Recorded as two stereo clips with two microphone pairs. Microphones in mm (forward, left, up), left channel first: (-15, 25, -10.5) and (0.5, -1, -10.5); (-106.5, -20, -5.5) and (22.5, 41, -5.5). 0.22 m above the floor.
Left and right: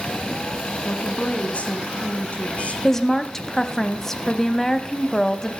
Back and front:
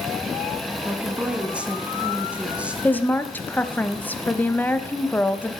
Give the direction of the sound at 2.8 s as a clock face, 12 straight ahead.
7 o'clock.